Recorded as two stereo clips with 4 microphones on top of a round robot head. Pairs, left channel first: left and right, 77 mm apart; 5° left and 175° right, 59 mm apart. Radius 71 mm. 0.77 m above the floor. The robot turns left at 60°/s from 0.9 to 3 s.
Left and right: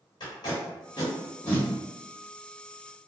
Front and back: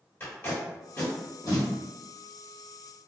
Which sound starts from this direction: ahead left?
Tape being pulled, at 0.2 s.